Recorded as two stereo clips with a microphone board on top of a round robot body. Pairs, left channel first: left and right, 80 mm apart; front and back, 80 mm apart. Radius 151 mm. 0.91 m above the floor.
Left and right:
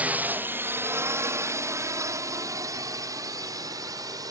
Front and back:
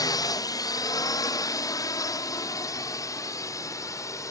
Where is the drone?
25° right; by 4.3 s 50° right.